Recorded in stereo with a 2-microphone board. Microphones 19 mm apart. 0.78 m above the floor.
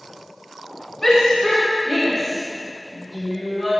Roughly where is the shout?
Centre.